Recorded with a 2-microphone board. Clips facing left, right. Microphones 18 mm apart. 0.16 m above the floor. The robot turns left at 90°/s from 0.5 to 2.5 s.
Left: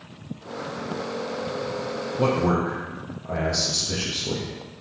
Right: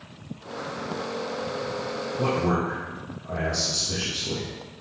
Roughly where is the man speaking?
Left.